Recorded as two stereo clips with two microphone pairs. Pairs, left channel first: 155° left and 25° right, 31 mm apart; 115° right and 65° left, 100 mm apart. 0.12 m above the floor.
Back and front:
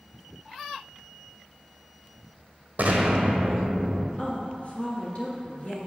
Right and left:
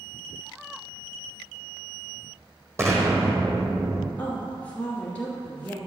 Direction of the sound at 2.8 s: 5° left.